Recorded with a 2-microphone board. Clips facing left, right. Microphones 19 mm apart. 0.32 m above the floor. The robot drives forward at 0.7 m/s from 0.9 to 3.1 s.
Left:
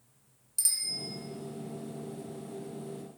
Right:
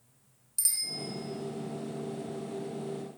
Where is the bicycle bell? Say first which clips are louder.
Left 1 dB; centre (ahead or behind), 2.5 m.